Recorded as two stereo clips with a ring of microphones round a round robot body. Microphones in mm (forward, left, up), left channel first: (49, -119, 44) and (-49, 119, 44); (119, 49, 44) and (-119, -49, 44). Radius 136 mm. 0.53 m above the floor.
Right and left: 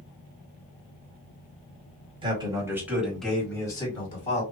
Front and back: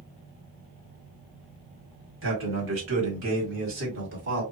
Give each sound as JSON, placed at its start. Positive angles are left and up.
{"t": 2.2, "sound": "a man speaking", "azimuth_deg": 180, "distance_m": 2.0}